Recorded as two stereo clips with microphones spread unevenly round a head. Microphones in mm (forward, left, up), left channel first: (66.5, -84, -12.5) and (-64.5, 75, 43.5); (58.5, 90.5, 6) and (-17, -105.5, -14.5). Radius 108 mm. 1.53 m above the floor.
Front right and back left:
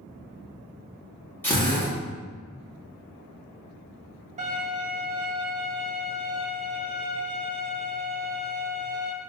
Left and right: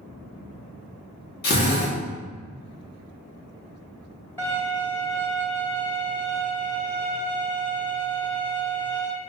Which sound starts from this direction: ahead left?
A drill, at 1.4 s.